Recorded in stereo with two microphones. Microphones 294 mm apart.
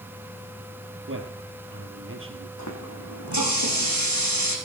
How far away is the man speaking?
About 3 m.